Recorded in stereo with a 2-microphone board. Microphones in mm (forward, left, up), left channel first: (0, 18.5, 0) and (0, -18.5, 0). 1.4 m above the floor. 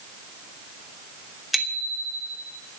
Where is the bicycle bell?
5° right (ahead or behind), 2.5 m.